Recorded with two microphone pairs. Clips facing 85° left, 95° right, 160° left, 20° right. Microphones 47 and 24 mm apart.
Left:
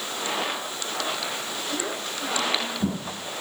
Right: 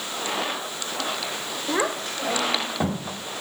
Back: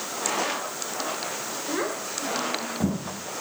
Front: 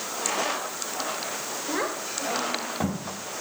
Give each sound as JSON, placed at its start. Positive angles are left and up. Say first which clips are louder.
{"t": 1.7, "sound": "a child speaking", "louder": "right 8 dB, even", "azimuth_deg": -105, "distance_m": 1.8}